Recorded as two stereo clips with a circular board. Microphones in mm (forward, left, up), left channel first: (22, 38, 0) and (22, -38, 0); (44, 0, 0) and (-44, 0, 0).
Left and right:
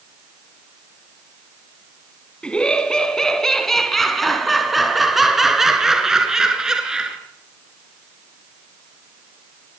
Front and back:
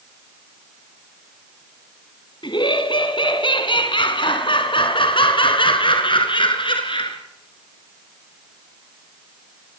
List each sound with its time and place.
2.4 s laughter: 15° left, 3.5 m; by 7.2 s 10° right, 5.5 m